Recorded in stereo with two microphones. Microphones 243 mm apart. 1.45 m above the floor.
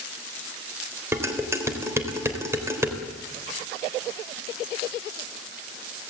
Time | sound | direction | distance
1.1 | dishes clattering | 10° right (ahead or behind) | 3.5 m